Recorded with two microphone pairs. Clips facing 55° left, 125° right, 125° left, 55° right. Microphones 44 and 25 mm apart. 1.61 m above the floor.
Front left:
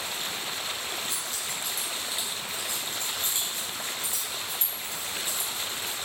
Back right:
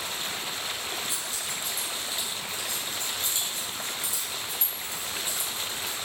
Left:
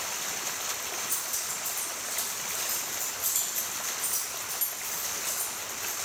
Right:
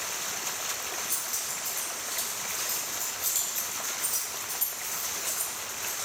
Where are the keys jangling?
55° right, 1.4 m; by 6.0 s 40° left, 2.5 m.